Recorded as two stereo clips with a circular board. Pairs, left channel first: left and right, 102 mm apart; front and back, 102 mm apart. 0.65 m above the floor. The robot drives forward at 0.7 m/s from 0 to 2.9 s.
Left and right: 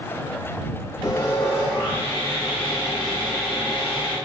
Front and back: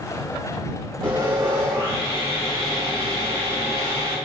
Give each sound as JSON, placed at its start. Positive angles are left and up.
{"t": 1.0, "sound": "sawing", "azimuth_deg": 140, "distance_m": 1.2}